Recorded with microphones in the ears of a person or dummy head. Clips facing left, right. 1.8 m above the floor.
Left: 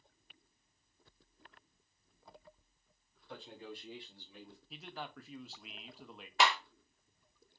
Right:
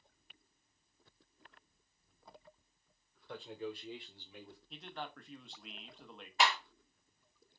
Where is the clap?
45° left (ahead or behind), 1.2 m.